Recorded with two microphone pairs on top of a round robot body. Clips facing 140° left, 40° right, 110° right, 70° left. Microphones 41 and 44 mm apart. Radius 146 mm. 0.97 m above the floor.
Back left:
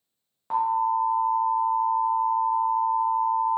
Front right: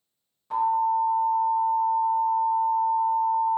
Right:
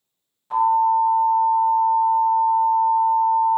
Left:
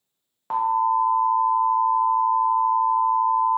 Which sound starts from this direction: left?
An alarm, at 0.5 s.